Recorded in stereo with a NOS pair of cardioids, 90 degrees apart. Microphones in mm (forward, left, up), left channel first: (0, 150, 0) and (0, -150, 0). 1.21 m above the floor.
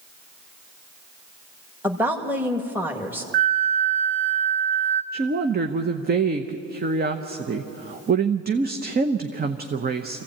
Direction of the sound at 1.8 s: 5° right.